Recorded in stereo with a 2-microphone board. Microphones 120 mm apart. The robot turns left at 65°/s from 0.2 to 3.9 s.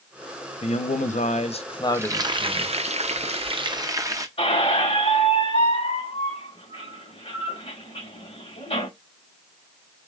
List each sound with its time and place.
0.6 s a man speaking: 120° left, 0.7 m; by 2.8 s 20° right, 0.7 m
1.9 s frying: 20° right, 0.5 m; by 4.3 s 150° right, 0.5 m
4.4 s a squeak: 55° left (ahead or behind), 2.5 m